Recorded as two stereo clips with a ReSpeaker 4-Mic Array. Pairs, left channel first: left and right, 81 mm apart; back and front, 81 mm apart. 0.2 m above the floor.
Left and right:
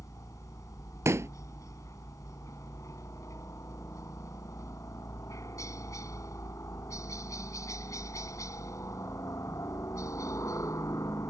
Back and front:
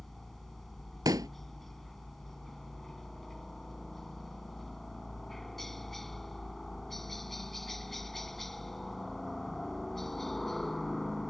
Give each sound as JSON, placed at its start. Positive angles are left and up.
{"t": 0.0, "sound": "a helicopter", "azimuth_deg": 95}
{"t": 1.1, "sound": "a pop", "azimuth_deg": -35}